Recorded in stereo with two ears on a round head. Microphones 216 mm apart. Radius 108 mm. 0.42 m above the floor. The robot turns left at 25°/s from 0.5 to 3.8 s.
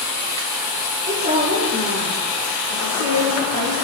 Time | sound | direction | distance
1.1 | a woman speaking | 30° right | 8 m